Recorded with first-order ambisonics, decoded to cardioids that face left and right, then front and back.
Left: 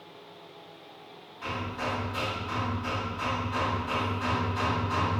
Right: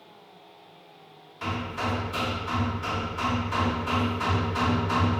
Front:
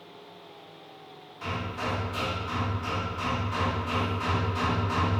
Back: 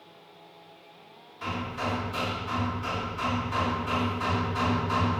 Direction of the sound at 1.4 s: 90° right.